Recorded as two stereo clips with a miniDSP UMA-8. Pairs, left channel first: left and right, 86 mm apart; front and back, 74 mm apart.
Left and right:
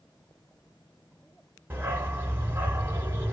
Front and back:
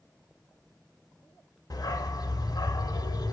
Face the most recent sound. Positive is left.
turn(degrees=-30)